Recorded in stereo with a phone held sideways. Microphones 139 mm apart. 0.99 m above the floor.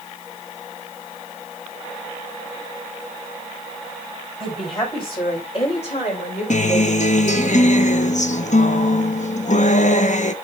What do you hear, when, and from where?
4.4 s a woman speaking: 35° left (ahead or behind), 4.5 m; by 7.5 s 60° left (ahead or behind), 4 m
6.5 s a guitar: 60° left (ahead or behind), 0.6 m